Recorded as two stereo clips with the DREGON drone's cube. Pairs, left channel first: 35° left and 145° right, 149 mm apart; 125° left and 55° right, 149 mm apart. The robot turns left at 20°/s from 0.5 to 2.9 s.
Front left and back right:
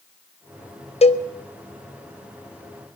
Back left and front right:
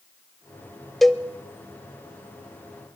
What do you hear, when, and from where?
1.0 s a cowbell: 35° left, 0.5 m; by 1.3 s 30° left, 0.5 m